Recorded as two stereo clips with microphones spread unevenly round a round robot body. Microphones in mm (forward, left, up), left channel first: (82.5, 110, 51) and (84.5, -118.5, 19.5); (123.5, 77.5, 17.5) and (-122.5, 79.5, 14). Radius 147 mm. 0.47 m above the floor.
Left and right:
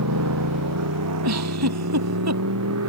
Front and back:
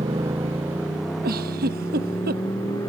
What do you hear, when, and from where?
0.0 s a motorcycle: 100° right; by 2.9 s 80° right
1.2 s a giggle: 120° right